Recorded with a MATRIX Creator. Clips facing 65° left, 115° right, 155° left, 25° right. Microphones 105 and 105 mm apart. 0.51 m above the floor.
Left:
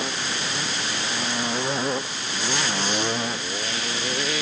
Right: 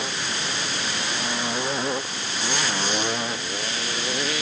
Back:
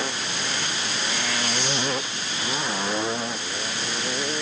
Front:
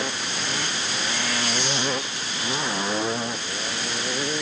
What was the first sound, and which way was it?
Only background noise.